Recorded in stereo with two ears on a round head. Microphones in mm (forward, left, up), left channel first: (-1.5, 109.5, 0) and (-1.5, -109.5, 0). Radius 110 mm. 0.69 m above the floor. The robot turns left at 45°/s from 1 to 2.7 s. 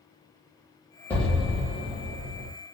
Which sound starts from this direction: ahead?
An explosion, at 1.1 s.